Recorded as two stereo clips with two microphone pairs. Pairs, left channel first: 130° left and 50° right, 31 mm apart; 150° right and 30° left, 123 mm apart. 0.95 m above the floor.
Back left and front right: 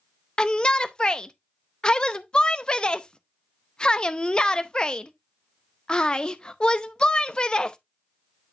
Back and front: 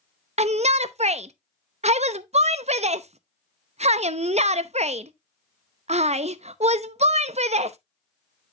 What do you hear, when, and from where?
0.4 s a shout: 65° left, 0.7 m